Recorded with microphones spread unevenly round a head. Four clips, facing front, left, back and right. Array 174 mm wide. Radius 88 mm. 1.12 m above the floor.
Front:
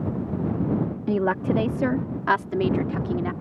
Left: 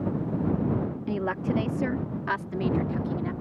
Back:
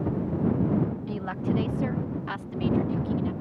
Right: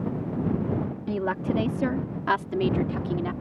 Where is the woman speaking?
5° right; by 3.3 s 35° right.